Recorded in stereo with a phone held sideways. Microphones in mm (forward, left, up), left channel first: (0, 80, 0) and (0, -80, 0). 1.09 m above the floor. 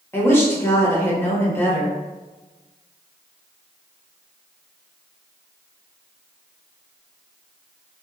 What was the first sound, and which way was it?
A woman speaking, 15° left (ahead or behind).